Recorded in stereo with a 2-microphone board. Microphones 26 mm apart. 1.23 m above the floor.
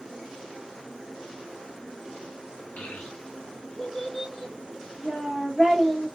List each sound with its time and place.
2.8 s a child speaking: 75° left (ahead or behind), 0.8 m; by 6.1 s 10° left (ahead or behind), 2 m